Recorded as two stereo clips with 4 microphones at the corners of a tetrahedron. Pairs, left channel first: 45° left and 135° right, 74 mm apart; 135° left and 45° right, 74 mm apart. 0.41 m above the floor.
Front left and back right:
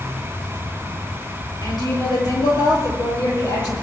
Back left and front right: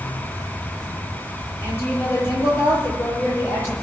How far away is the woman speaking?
About 9.5 m.